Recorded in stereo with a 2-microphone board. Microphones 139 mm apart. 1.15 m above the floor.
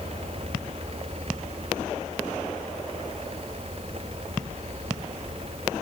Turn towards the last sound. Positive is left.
No sound to turn to.